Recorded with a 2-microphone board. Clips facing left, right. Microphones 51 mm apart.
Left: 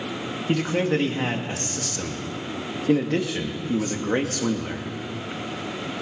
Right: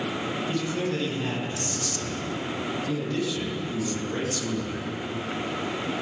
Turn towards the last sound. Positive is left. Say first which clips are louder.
# left 8 dB
turn(degrees=65)  # may be behind; listen again after turning